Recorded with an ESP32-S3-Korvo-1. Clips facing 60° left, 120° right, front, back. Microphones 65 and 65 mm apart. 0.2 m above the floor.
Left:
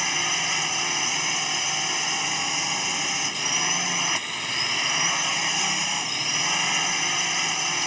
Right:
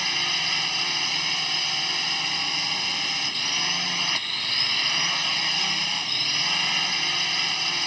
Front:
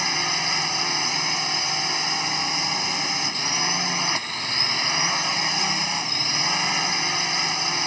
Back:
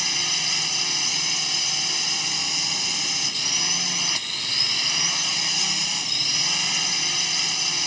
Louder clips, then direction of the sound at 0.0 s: Left 2 dB, front 5 dB; 5° right.